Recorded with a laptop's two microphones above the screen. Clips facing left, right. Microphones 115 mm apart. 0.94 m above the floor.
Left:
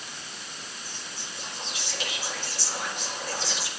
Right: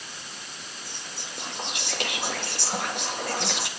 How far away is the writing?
No writing in this recording.